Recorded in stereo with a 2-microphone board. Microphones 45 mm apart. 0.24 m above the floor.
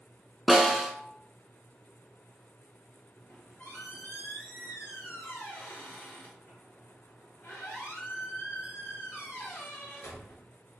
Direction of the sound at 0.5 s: Centre (ahead or behind).